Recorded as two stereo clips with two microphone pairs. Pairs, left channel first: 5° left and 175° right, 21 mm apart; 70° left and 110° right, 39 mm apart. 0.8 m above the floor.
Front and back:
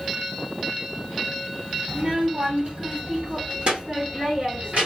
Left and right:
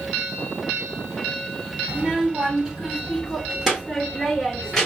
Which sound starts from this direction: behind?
A child speaking, at 1.9 s.